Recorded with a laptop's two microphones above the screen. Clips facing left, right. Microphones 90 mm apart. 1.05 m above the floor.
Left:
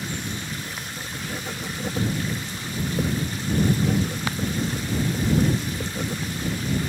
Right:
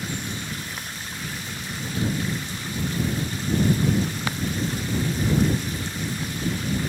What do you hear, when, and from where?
0.7 s writing: 60° left (ahead or behind)